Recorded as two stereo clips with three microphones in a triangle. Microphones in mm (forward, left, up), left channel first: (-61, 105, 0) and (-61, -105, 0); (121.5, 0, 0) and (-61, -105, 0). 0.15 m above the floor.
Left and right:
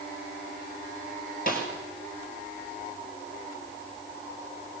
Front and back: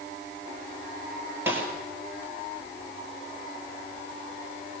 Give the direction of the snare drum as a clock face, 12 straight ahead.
8 o'clock.